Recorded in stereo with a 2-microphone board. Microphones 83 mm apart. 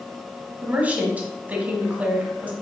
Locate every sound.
0.6 s a woman speaking: 20° right (ahead or behind), 1.0 m